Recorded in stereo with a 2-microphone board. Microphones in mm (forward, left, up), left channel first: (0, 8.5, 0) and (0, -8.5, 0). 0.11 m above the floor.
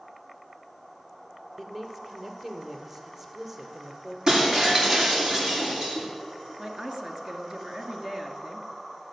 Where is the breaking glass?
35° right (ahead or behind), 6 m.